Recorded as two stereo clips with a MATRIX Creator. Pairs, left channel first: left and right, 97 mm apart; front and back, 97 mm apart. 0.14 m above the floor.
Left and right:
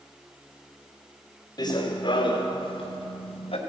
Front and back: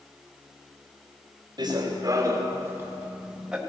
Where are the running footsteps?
135° left, 2 m; by 3.6 s 95° left, 2 m.